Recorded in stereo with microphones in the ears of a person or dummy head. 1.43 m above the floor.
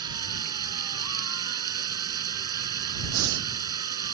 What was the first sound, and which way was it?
Running water, 25° right (ahead or behind).